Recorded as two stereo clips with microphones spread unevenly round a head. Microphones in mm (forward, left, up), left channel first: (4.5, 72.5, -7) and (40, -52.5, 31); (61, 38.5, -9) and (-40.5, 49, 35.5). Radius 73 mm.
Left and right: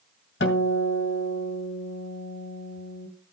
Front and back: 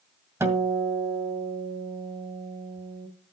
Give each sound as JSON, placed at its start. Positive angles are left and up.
{"t": 0.4, "sound": "a guitar", "azimuth_deg": 125, "distance_m": 2.0}